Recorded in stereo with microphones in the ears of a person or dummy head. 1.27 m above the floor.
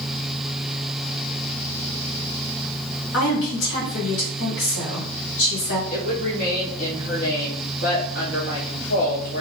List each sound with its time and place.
3.1 s a woman speaking: 70° left (ahead or behind), 3 m
5.9 s a woman speaking: 50° left (ahead or behind), 2.5 m